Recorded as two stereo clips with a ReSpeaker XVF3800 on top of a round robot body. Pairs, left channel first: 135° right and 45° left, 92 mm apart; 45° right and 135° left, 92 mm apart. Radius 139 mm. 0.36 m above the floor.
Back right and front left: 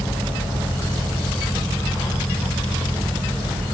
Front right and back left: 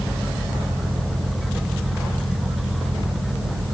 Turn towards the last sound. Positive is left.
No sound to turn to.